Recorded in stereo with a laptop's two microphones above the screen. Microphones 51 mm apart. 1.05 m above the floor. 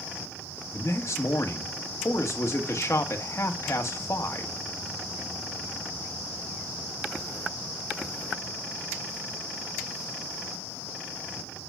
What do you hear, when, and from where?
0.7 s a man speaking: 70° left (ahead or behind), 1.4 m